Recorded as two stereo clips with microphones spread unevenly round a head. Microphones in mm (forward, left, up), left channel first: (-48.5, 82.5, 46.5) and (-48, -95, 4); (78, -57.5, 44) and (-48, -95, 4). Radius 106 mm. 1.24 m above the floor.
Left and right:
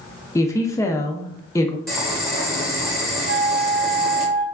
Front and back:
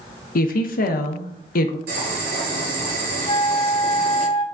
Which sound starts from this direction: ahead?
A woman speaking, at 0.3 s.